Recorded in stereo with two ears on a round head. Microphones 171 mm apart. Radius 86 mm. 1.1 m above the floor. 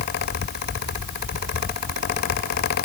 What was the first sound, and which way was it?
Only background noise.